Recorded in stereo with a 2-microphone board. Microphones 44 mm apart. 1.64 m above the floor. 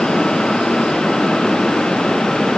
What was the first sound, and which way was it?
Only background noise.